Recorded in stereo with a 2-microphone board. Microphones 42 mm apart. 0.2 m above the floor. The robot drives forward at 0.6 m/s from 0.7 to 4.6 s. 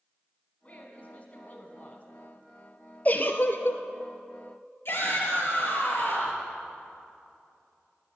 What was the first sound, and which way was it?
A woman speaking, 35° left (ahead or behind).